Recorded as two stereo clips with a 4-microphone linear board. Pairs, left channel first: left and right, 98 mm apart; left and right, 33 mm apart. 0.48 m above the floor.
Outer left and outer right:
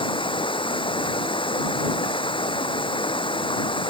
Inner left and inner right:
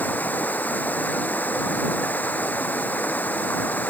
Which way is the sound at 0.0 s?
60° left (ahead or behind).